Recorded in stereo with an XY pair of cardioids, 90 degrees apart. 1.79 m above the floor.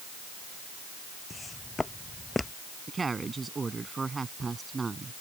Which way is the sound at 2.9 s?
30° right.